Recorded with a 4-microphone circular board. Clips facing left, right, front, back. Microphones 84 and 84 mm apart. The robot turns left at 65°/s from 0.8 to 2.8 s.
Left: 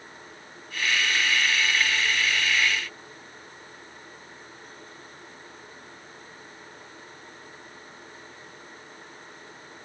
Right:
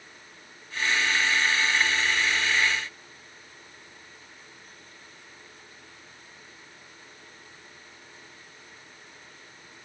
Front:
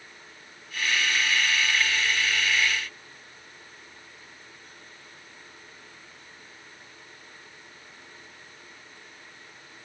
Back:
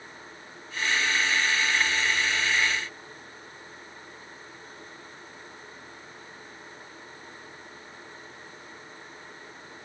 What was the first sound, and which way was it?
Only background noise.